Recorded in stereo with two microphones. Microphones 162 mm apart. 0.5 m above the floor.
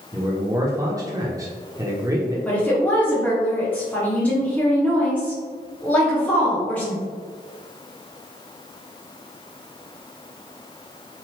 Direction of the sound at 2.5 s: 10° left (ahead or behind).